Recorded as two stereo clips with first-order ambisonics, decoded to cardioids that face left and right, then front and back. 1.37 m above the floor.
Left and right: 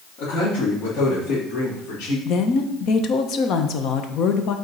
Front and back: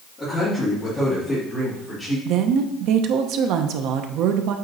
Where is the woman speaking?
140° left, 0.8 m.